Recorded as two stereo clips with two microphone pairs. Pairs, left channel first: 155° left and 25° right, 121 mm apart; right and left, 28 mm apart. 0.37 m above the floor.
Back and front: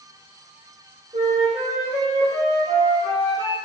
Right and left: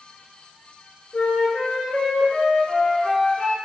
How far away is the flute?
About 1.3 m.